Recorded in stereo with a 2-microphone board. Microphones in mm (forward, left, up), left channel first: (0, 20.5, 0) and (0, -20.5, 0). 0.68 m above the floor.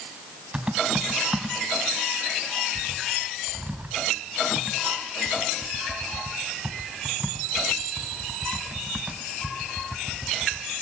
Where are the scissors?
I don't hear scissors.